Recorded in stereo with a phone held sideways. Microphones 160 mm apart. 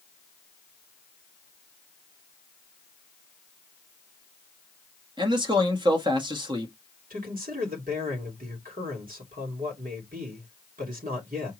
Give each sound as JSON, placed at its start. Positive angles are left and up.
{"t": 5.2, "sound": "a man speaking", "side_deg": -30, "distance_m": 1.4}
{"t": 7.1, "sound": "a man speaking", "side_deg": -60, "distance_m": 2.5}